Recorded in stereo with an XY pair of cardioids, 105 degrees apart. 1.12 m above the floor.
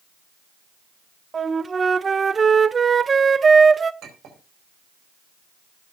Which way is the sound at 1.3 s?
30° right.